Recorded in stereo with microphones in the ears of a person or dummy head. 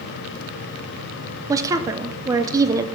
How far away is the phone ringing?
No phone ringing in this recording.